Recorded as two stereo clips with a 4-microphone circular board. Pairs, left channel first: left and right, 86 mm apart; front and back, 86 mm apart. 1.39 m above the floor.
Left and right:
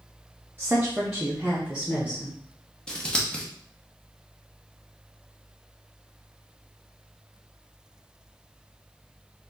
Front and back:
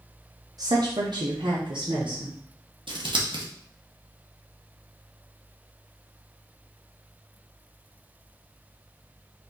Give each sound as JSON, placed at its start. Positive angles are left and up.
{"t": 0.6, "sound": "a woman speaking", "azimuth_deg": -150, "distance_m": 0.7}
{"t": 2.9, "sound": "scissors", "azimuth_deg": 170, "distance_m": 0.9}